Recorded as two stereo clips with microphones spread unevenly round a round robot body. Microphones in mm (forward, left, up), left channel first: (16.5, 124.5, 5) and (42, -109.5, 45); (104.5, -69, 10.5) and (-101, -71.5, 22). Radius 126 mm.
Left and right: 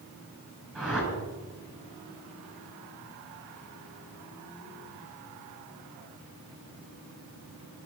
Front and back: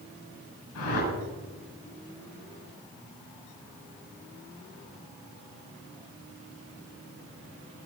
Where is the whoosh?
10° left, 6.5 m.